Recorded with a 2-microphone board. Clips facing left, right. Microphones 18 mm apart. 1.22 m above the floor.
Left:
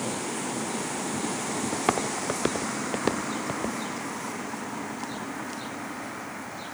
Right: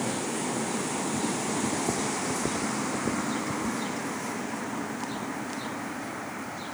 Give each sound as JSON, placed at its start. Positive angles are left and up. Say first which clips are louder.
{"t": 1.7, "sound": "footsteps", "louder": "left 2 dB", "side_deg": 70}